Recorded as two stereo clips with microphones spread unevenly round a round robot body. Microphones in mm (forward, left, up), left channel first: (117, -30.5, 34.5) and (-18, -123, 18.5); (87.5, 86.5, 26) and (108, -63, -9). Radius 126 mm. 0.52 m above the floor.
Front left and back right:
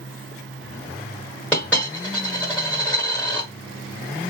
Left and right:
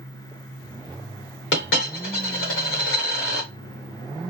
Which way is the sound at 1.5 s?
120° left.